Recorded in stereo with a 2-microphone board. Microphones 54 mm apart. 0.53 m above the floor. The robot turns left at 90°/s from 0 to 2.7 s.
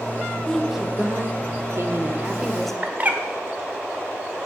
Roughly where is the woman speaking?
Ahead.